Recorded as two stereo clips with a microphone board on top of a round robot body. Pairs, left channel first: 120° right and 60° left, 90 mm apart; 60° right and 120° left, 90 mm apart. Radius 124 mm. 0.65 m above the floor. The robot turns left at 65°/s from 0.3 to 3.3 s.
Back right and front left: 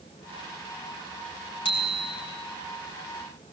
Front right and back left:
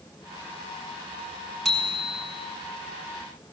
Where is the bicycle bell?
150° right, 6 m; by 2.2 s 175° left, 6 m.